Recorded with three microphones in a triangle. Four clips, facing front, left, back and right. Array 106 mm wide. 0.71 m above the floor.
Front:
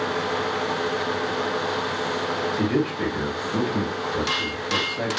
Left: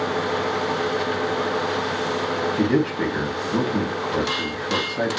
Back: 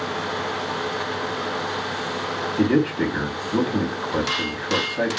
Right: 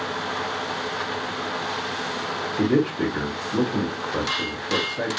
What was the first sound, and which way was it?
A man speaking, 135° left.